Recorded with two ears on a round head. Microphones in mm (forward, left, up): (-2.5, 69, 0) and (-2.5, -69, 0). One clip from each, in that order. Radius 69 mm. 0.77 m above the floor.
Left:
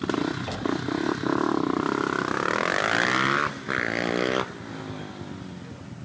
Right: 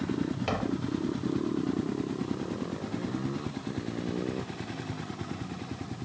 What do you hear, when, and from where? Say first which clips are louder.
0.5 s tapping: left 3 dB; 30° right (ahead or behind)